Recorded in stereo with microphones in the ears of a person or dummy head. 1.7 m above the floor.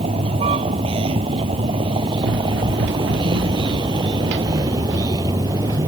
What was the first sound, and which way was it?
A vehicle, 35° right (ahead or behind).